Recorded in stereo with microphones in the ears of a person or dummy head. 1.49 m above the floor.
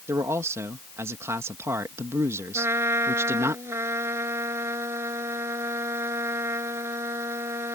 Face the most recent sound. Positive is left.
turn(degrees=-20)  # may be behind; listen again after turning